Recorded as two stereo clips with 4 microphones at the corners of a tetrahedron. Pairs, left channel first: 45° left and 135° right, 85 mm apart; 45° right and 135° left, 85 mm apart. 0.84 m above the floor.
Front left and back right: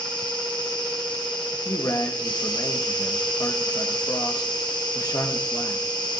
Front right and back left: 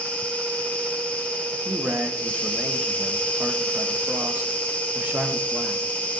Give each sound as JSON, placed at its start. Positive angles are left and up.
{"t": 0.0, "sound": "an insect", "azimuth_deg": 25, "distance_m": 1.1}
{"t": 1.5, "sound": "a man speaking", "azimuth_deg": 70, "distance_m": 1.3}